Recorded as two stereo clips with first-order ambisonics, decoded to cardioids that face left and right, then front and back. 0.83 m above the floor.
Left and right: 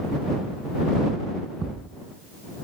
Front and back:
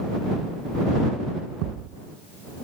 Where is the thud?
160° right.